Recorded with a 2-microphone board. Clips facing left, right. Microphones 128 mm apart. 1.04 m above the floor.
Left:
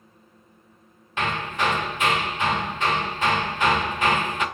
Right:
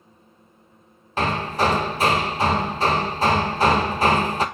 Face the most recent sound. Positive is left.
turn(degrees=-35)  # may be behind; listen again after turning